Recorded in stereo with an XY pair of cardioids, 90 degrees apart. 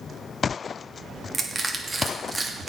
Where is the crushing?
20° right, 2.5 m.